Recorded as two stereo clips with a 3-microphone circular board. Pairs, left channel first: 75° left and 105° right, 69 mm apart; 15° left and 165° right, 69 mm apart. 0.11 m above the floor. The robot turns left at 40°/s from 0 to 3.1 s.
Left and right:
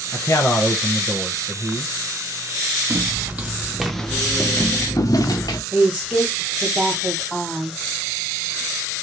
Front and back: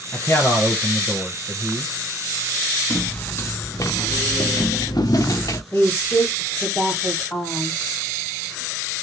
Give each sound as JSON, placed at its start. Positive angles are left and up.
{"t": 0.1, "sound": "a man speaking", "azimuth_deg": 60, "distance_m": 1.8}
{"t": 2.9, "sound": "footsteps", "azimuth_deg": -40, "distance_m": 1.0}
{"t": 5.7, "sound": "a woman speaking", "azimuth_deg": -25, "distance_m": 2.5}